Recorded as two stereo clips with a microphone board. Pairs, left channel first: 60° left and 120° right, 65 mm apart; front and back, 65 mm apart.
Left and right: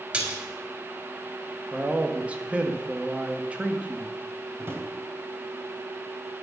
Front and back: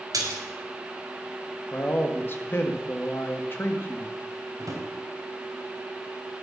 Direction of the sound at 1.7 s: 50° right.